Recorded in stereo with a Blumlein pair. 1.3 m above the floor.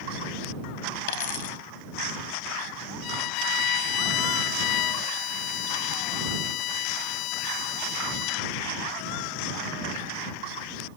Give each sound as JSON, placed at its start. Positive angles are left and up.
{"t": 1.1, "sound": "a dropped coin", "azimuth_deg": 50}
{"t": 3.0, "sound": "a violin", "azimuth_deg": 40}